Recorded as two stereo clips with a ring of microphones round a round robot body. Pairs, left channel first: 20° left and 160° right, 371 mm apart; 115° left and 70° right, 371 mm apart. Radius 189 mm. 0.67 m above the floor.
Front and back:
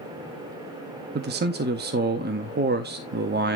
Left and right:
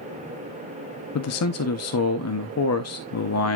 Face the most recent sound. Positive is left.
turn(degrees=145)